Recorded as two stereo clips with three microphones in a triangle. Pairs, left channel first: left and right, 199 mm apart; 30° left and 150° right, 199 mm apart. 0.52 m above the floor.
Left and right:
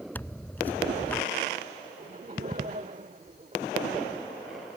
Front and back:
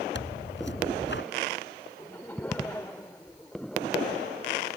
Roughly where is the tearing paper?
Ahead.